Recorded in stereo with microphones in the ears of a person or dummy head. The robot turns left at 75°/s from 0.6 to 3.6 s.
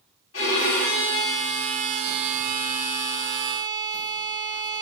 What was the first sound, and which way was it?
A violin, 90° left.